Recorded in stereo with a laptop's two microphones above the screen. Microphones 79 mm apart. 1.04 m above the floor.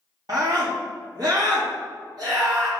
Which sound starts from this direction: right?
A scream, at 0.3 s.